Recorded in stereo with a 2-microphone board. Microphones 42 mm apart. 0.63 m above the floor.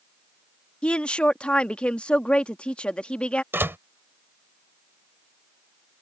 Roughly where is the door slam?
Right.